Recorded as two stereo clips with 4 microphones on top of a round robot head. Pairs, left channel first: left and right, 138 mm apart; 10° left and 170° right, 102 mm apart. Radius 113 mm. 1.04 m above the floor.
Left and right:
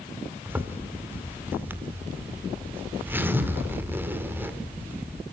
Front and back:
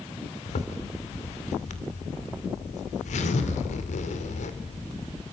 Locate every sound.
0.5 s a zipper: 15° right, 2.0 m